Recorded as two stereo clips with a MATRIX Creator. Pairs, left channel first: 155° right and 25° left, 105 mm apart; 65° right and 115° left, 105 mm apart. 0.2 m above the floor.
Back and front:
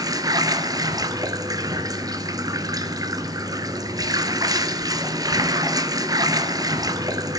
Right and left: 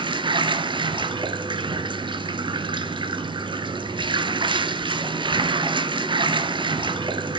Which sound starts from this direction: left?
Running water, at 0.0 s.